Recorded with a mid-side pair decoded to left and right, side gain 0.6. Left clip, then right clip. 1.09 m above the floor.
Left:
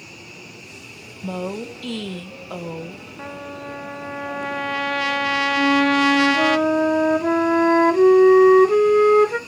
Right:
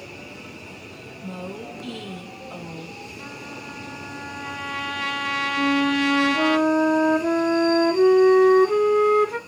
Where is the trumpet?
45° left, 0.8 m.